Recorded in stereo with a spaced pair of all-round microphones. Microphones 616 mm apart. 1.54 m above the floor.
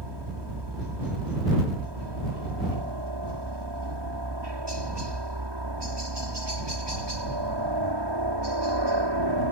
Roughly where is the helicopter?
Right.